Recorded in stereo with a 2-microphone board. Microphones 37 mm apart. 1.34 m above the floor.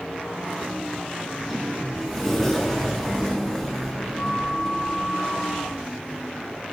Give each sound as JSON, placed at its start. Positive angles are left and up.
{"t": 1.2, "sound": "a sliding door", "side_deg": 0, "distance_m": 2.0}